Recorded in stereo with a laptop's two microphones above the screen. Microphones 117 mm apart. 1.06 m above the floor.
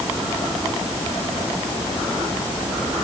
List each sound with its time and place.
Only background noise.